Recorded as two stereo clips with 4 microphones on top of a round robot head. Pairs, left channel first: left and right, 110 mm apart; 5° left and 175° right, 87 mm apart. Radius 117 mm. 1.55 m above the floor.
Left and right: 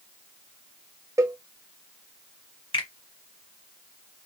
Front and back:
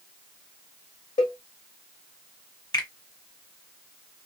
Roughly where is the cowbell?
Ahead right.